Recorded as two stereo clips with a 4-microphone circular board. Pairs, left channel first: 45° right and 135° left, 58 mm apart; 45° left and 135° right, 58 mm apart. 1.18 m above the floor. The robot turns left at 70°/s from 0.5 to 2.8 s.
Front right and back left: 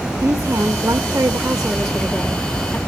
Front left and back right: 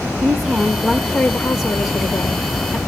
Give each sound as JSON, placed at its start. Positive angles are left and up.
{"t": 0.2, "sound": "a woman speaking", "azimuth_deg": 170, "distance_m": 1.7}